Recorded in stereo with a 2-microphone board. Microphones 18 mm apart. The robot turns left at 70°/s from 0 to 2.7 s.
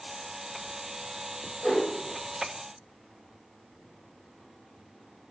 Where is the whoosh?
35° left (ahead or behind), 1.9 m; by 1.8 s 20° left (ahead or behind), 1.9 m.